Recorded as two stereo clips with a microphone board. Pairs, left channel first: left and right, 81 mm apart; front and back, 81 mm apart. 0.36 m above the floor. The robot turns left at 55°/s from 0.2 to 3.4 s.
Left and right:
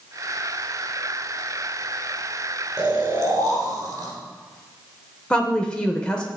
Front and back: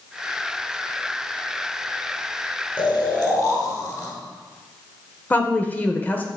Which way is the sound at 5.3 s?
30° left.